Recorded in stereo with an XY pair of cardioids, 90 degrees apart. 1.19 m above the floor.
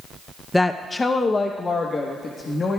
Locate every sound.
0.5 s a woman speaking: 15° left, 0.6 m; by 2.8 s 50° left, 1.7 m